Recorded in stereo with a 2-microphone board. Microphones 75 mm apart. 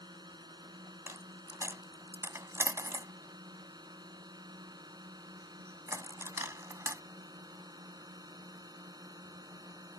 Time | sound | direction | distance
0.0 | a drone | 70° right (ahead or behind) | ?
1.1 | a dropped coin | 40° right (ahead or behind) | ?